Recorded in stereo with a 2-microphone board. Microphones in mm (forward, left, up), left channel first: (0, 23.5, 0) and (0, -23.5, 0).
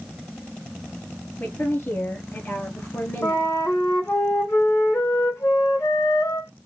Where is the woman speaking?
45° left (ahead or behind), 3.5 m; by 3.5 s 55° left (ahead or behind), 3 m.